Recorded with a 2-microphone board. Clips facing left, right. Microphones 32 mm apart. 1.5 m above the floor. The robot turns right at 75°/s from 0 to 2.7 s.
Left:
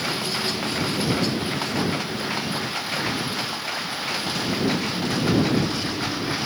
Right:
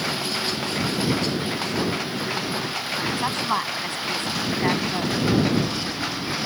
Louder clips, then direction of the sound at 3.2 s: Right 4 dB; 65° right (ahead or behind).